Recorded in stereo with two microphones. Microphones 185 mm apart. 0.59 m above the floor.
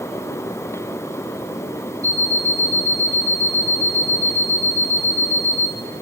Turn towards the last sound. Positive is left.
turn(degrees=-50)  # may be behind; listen again after turning